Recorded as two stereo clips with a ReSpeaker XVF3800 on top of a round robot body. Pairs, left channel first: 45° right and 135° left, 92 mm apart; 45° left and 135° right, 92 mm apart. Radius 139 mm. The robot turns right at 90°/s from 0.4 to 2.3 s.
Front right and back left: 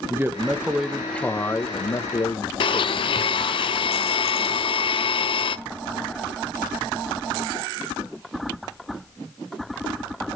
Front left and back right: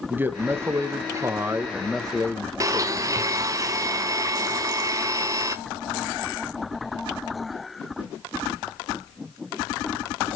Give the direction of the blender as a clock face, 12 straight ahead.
3 o'clock.